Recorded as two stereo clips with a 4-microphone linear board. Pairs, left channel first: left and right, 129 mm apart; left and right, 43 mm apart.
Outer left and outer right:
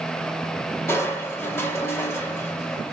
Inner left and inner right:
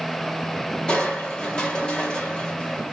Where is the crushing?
20° left (ahead or behind), 1.5 m.